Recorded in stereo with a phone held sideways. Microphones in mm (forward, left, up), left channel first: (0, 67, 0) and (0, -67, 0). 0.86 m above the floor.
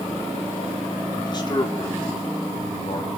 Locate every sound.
1.2 s a man speaking: 30° left (ahead or behind), 2.5 m; by 3.1 s 50° left (ahead or behind), 3.5 m